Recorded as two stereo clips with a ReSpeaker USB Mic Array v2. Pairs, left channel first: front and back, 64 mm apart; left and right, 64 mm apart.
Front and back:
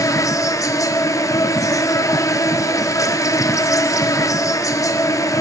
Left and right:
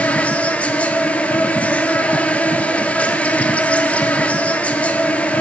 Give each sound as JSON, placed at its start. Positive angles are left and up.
{"t": 0.0, "sound": "an insect", "azimuth_deg": 25, "distance_m": 0.8}